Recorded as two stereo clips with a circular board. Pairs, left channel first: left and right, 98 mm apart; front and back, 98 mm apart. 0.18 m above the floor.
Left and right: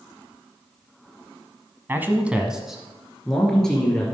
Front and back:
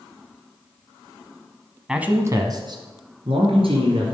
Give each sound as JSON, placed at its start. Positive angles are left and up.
{"t": 1.9, "sound": "a man speaking", "azimuth_deg": -110, "distance_m": 1.0}